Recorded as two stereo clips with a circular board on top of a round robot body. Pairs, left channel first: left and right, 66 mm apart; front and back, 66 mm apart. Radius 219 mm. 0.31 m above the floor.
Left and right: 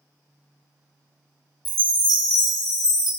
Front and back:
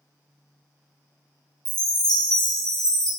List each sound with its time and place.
1.6 s a chime: 80° left, 0.9 m